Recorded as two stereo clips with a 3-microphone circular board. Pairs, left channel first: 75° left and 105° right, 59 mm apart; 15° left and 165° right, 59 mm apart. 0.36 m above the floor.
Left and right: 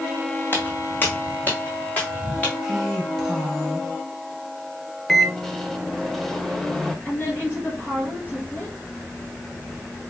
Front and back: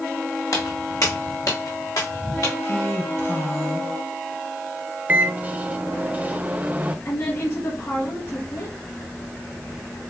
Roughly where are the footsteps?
Ahead.